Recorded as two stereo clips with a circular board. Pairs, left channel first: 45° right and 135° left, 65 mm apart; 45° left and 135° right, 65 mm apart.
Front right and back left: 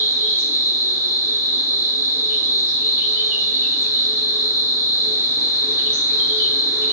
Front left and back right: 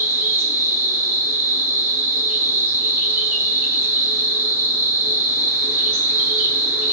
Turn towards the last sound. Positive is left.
turn(degrees=175)